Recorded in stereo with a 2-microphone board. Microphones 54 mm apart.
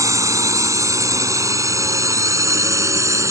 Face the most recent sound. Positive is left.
turn(degrees=-70)  # may be behind; listen again after turning